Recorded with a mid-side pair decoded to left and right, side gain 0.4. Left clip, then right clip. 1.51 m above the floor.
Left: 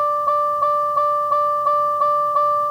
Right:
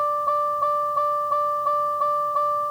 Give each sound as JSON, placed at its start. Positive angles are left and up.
{"t": 0.0, "sound": "a vehicle", "azimuth_deg": 25}